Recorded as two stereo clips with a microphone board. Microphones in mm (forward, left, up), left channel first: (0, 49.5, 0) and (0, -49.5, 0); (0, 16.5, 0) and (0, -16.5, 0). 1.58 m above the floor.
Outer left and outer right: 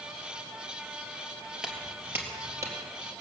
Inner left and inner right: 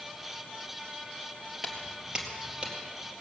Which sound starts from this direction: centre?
Footsteps, at 1.6 s.